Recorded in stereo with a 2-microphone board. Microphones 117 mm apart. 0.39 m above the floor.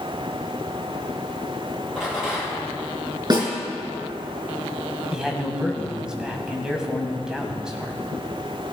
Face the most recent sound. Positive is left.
turn(degrees=-5)  # may be behind; listen again after turning